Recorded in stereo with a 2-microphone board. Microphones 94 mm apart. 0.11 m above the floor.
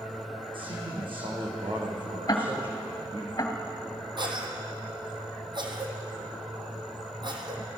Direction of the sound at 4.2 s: 55° right (ahead or behind).